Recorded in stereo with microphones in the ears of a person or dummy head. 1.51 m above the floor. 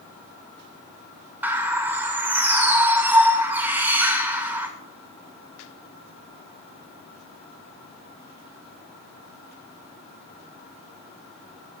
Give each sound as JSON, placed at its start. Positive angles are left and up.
{"t": 1.4, "sound": "a bird", "side_deg": -5, "distance_m": 0.5}